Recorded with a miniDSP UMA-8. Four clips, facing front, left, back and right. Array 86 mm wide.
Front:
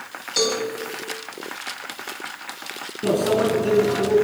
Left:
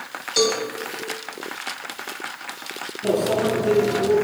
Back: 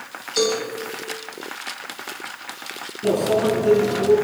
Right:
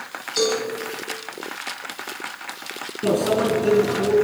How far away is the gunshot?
I don't hear a gunshot.